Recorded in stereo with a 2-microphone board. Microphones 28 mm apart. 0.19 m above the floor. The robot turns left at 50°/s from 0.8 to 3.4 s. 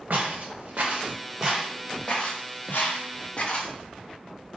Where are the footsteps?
65° right (ahead or behind), 1.8 m; by 3.7 s 40° left (ahead or behind), 1.2 m.